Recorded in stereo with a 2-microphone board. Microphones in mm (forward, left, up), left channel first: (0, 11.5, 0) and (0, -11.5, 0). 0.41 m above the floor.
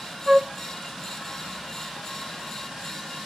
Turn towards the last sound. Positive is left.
turn(degrees=-20)  # may be behind; listen again after turning